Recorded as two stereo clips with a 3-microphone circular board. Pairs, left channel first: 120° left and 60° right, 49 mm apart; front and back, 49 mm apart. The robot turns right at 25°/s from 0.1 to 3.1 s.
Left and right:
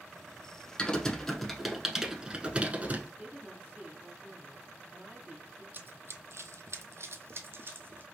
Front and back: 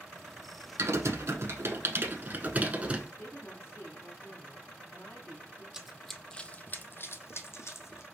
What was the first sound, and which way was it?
Typing on a keyboard, 170° right.